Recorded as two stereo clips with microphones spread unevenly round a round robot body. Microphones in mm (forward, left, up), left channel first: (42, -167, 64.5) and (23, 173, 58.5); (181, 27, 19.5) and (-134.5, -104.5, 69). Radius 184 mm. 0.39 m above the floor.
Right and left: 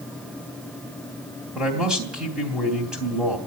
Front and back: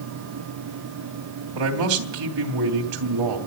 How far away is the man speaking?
About 3 m.